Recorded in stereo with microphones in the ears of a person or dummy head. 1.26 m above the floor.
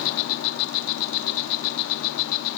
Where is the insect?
55° left (ahead or behind), 1.0 m.